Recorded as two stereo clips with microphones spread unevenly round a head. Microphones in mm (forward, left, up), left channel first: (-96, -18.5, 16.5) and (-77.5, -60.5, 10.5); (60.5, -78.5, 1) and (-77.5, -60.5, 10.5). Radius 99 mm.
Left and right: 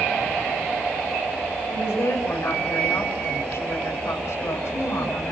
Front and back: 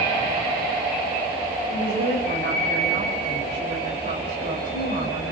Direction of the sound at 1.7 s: 135° left.